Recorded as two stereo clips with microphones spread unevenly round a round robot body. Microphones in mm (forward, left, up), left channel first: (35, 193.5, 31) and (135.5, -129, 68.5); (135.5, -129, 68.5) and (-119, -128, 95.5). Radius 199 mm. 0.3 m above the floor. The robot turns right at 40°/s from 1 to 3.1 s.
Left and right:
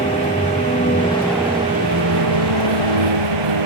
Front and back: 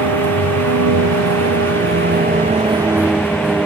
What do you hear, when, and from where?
0.0 s a vehicle: 175° right; by 3.7 s 95° right